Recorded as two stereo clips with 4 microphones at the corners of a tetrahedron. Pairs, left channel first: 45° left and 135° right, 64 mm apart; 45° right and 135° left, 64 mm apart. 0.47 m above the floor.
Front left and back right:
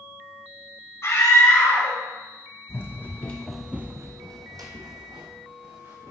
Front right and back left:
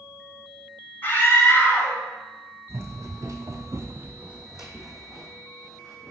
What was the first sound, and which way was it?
A scream, 10° left.